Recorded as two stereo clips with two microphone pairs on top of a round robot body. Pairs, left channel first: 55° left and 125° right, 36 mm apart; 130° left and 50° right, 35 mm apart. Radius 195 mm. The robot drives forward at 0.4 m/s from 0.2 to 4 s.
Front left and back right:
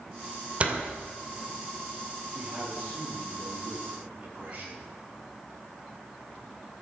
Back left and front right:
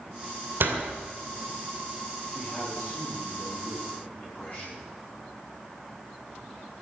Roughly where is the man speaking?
Behind.